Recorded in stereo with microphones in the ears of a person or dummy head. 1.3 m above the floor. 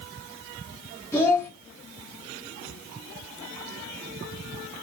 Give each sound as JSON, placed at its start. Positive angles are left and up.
{"t": 1.1, "sound": "a child speaking", "side_deg": 20, "distance_m": 1.3}